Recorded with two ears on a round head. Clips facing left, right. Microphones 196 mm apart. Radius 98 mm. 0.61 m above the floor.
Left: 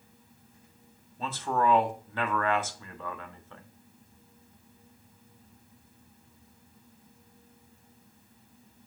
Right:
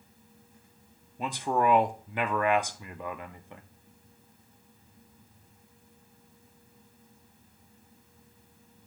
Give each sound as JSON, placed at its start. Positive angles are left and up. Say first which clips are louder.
{"t": 1.2, "sound": "a man speaking", "louder": "right 1 dB", "side_deg": -15, "distance_m": 0.6}